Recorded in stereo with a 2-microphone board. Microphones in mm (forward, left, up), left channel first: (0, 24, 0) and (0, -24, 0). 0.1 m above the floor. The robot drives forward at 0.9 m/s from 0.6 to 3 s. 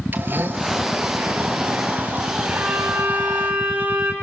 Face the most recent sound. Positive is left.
turn(degrees=-40)  # may be behind; listen again after turning